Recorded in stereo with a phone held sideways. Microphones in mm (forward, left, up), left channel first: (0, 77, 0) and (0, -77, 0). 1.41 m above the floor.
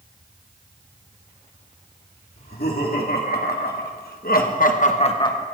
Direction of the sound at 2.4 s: 80° left.